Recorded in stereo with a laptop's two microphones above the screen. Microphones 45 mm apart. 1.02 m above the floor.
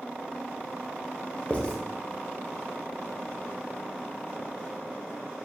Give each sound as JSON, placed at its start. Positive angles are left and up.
{"t": 1.5, "sound": "writing", "side_deg": 25, "distance_m": 0.8}